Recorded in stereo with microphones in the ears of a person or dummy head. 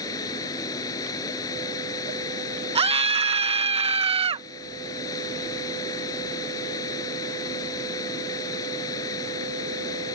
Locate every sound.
0.0 s running water: 20° left (ahead or behind)
2.8 s a scream: 30° right (ahead or behind)